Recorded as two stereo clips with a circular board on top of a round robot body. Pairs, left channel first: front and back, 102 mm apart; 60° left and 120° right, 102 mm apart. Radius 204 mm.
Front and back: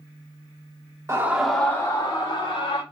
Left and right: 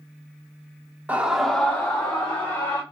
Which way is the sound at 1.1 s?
175° right.